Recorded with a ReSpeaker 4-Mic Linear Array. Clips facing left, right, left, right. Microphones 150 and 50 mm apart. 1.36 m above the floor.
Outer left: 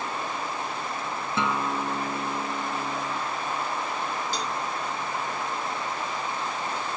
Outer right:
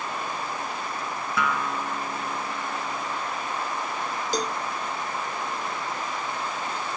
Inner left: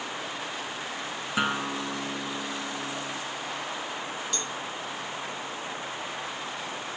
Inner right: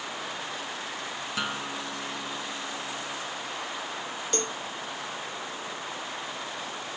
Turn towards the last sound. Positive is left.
turn(degrees=-45)  # may be behind; listen again after turning